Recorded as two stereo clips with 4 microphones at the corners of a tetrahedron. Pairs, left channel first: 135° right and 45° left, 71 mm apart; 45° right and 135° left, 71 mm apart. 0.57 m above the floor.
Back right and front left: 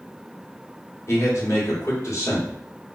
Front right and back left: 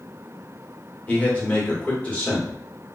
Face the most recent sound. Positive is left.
turn(degrees=-110)